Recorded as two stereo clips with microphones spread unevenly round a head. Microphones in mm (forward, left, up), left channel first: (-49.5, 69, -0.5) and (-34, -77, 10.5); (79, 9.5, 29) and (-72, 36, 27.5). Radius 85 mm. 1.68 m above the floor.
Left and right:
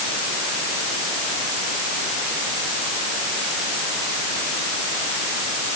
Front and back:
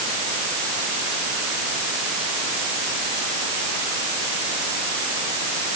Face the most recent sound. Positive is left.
No sound to turn to.